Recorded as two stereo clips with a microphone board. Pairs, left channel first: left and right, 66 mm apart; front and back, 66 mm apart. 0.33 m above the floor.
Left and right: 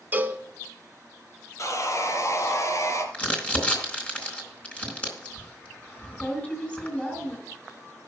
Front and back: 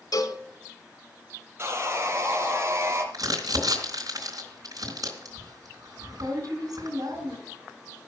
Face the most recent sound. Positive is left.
turn(degrees=160)